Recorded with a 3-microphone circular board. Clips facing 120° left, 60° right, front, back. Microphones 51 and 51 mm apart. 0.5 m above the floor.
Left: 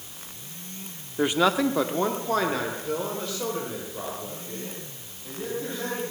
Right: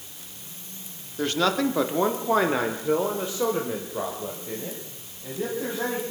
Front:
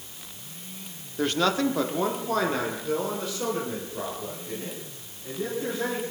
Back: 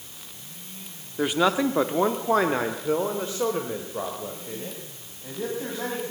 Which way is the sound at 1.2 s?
125° left.